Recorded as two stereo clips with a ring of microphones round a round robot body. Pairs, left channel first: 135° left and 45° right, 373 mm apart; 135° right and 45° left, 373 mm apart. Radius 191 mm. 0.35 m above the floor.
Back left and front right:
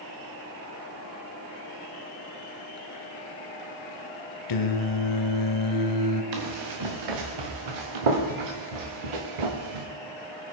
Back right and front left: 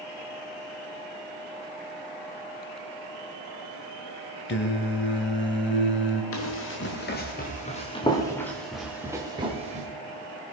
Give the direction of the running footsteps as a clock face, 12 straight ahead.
3 o'clock.